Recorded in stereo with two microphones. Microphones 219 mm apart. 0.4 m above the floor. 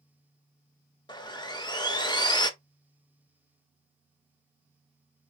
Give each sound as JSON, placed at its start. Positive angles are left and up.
{"t": 1.1, "sound": "sawing", "side_deg": 20, "distance_m": 0.7}